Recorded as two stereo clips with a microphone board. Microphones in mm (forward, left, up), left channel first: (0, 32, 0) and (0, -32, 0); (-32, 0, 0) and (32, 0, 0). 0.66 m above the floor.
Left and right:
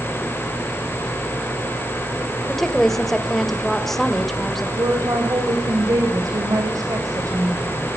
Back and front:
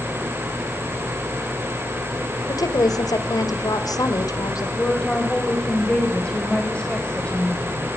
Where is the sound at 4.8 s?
105° right, 3.5 m.